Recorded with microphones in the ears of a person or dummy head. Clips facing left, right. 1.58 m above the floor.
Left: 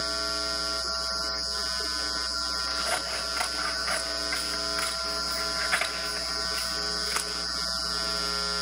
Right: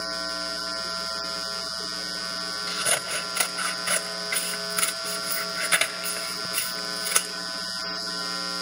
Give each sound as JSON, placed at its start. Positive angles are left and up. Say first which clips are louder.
{"t": 2.7, "sound": "scissors", "louder": "right 2 dB", "side_deg": -50, "distance_m": 2.0}